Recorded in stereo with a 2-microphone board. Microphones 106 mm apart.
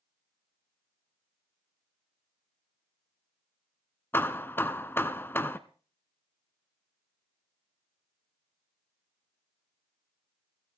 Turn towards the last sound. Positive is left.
turn(degrees=20)  # may be behind; listen again after turning